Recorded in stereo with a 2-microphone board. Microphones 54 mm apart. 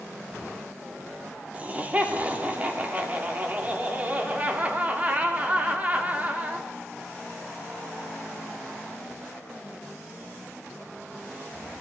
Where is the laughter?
30° right (ahead or behind), 1.9 m.